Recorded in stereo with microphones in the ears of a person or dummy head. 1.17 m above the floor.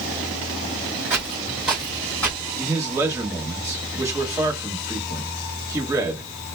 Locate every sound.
1.1 s footsteps: 10° right (ahead or behind), 1.8 m; by 2.4 s 10° left (ahead or behind), 1.5 m
2.6 s a man speaking: 20° right (ahead or behind), 1.4 m